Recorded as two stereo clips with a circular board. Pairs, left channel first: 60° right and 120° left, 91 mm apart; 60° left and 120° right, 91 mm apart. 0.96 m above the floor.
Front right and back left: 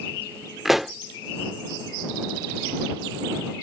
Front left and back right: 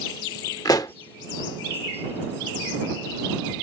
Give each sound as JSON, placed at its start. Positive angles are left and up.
{"t": 0.7, "sound": "a pop", "azimuth_deg": 35}